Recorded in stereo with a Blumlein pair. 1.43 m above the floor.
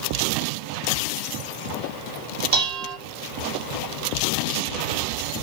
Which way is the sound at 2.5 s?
50° right.